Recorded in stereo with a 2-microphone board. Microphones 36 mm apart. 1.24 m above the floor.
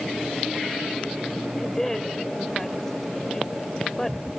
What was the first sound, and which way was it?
A woman speaking, 10° left (ahead or behind).